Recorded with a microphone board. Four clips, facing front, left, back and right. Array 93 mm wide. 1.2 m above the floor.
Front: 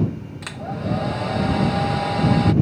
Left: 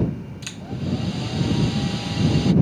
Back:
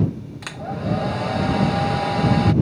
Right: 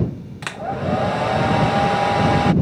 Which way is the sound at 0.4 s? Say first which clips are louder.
Right 9 dB, back 1 dB; 95° right.